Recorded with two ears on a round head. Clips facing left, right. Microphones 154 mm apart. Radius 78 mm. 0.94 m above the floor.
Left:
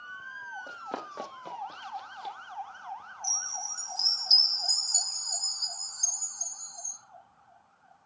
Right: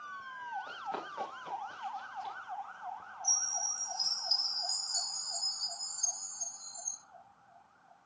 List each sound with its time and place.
0.7 s running footsteps: 55° left (ahead or behind), 3 m; by 2.4 s 50° left (ahead or behind), 1.7 m
3.2 s a chime: 50° left (ahead or behind), 3.5 m